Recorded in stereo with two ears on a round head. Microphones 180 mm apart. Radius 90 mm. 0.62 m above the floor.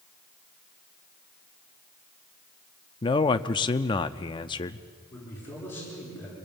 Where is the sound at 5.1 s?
10° left (ahead or behind), 9.5 m.